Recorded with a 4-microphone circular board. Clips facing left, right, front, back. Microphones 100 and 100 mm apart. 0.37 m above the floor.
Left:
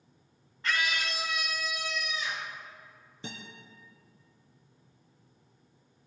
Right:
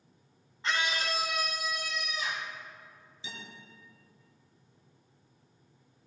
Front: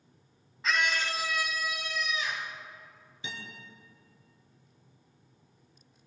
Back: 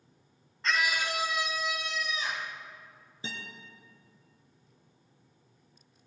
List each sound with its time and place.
0.6 s a scream: 80° right, 0.8 m; by 2.5 s 125° right, 2.5 m
3.2 s a guitar: 125° left, 4 m